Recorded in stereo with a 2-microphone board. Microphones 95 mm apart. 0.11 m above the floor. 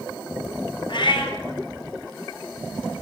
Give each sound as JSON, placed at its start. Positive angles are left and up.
{"t": 0.9, "sound": "a cat meowing", "side_deg": 60, "distance_m": 1.2}